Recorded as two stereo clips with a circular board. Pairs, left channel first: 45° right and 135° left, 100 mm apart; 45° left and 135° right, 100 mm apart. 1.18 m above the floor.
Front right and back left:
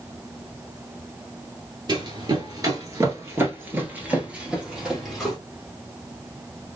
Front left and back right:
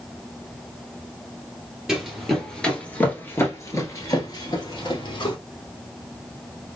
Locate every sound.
1.9 s running footsteps: 140° left, 1.5 m; by 5.4 s 45° left, 1.8 m